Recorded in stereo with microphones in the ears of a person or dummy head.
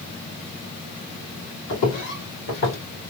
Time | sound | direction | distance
1.7 | footsteps | 50° left (ahead or behind) | 2.5 m